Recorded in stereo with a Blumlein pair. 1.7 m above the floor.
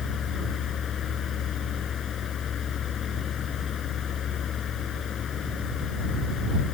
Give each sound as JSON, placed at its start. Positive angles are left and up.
{"t": 0.0, "sound": "a fan", "azimuth_deg": 25}